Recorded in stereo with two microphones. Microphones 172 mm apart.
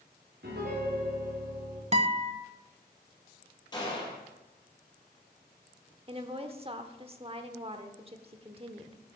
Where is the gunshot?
25° left (ahead or behind), 4.5 m.